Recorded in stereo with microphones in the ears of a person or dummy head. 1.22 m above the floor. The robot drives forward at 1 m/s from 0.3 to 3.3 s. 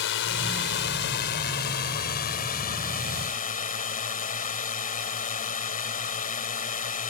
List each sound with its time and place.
0.0 s a drone: 60° left (ahead or behind); by 7.1 s 40° left (ahead or behind)